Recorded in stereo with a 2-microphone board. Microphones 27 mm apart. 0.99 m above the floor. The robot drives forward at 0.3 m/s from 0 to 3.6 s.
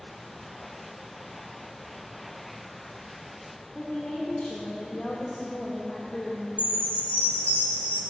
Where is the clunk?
No clunk in this recording.